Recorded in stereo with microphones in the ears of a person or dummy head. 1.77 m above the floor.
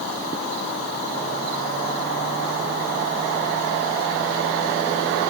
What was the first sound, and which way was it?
Only background noise.